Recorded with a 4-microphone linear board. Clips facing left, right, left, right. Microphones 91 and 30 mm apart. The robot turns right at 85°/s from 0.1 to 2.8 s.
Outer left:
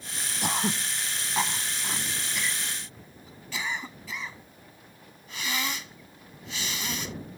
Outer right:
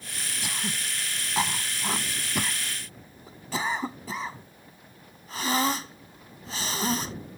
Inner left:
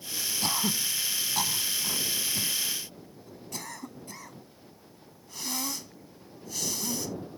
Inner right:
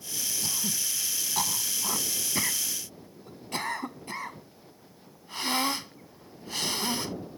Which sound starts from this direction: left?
Throat clearing, at 0.4 s.